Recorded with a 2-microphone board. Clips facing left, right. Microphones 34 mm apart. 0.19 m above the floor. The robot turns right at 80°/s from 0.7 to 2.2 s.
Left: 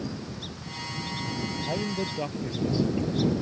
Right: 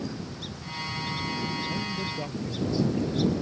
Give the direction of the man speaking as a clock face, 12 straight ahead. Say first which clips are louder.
Left 1 dB; 8 o'clock.